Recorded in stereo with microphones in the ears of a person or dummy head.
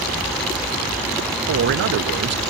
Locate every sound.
1.5 s a man speaking: 65° right (ahead or behind), 0.5 m